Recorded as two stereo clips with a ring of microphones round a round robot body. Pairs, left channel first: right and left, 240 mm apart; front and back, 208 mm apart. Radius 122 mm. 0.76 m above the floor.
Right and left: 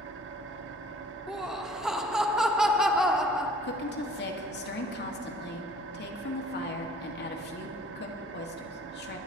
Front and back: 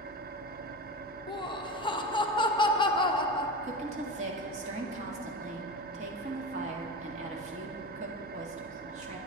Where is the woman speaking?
125° right, 1.8 m.